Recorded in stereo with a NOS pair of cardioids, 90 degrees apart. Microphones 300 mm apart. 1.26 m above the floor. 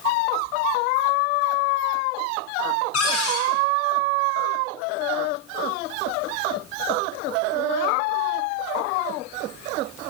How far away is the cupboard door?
About 1.0 m.